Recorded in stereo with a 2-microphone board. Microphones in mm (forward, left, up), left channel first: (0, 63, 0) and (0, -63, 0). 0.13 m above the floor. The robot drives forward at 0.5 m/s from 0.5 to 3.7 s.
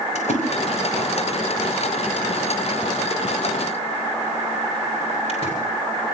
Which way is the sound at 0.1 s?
65° left (ahead or behind).